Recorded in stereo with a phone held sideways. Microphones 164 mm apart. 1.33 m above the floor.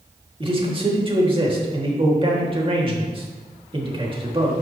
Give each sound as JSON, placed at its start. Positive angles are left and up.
{"t": 0.4, "sound": "a man speaking", "side_deg": -35, "distance_m": 2.0}